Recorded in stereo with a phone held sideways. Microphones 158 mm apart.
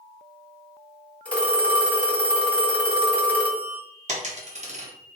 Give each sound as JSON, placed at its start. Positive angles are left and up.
{"t": 1.2, "sound": "a phone ringing", "side_deg": 10, "distance_m": 0.7}
{"t": 4.1, "sound": "a dropped coin", "side_deg": -50, "distance_m": 0.6}